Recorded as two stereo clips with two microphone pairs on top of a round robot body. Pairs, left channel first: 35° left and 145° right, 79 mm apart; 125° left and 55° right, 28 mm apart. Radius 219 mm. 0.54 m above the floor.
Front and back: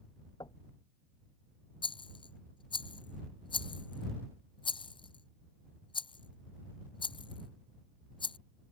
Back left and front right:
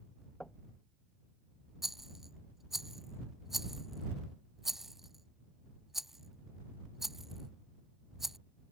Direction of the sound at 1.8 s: 25° left.